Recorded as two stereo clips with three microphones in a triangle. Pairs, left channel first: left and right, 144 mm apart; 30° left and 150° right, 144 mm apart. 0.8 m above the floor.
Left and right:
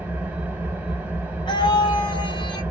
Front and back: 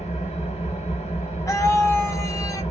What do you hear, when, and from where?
0.0 s an engine running: 10° right, 1.2 m
1.5 s a scream: 80° left, 1.0 m